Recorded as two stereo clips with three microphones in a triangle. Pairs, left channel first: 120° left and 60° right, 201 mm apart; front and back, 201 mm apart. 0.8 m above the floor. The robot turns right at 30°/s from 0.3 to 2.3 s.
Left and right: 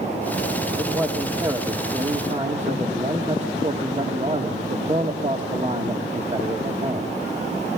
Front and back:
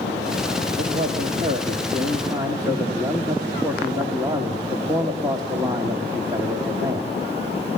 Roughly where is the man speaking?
Behind right.